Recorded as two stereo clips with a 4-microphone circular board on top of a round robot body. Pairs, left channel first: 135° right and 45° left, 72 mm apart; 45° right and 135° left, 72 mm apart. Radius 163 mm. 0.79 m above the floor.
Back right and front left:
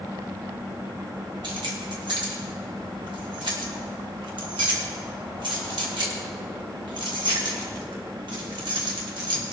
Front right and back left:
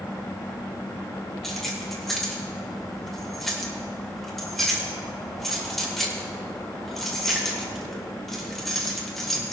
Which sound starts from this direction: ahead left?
Keys jangling, at 1.4 s.